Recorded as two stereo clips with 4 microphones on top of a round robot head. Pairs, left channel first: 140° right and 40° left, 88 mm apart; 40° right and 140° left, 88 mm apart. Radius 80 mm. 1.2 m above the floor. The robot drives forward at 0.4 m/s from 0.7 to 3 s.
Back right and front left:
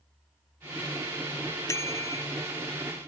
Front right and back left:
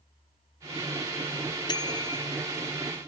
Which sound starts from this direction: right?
A bicycle bell, at 1.7 s.